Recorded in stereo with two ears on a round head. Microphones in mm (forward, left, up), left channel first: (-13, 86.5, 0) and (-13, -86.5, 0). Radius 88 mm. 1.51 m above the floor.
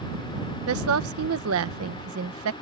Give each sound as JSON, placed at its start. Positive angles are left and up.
{"t": 0.7, "sound": "a woman speaking", "side_deg": -85}